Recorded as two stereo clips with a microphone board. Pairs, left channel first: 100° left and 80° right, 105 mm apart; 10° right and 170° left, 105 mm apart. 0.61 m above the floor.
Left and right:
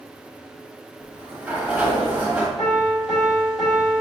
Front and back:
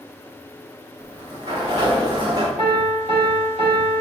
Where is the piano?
170° right, 1.8 m.